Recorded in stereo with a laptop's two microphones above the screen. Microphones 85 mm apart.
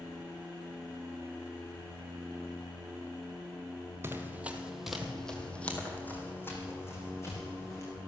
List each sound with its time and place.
4.0 s running footsteps: 30° right (ahead or behind), 1.2 m; by 7.9 s 35° left (ahead or behind), 3 m